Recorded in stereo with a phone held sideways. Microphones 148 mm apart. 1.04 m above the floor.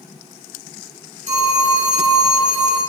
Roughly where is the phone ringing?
Right.